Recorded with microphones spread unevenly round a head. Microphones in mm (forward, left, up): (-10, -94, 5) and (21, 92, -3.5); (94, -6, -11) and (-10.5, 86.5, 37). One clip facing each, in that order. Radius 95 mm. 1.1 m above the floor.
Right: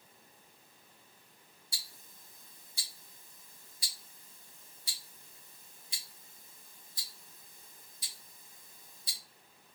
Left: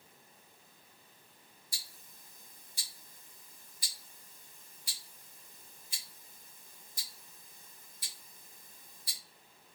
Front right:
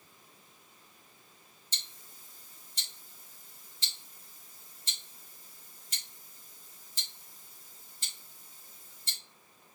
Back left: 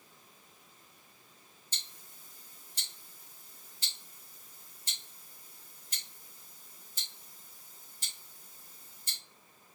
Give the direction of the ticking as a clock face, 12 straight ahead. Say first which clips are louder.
Even, front right 2 dB; 1 o'clock.